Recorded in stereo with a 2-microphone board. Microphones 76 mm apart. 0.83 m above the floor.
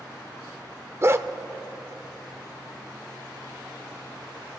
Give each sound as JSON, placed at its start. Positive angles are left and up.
{"t": 1.0, "sound": "a dog barking", "side_deg": -35, "distance_m": 0.6}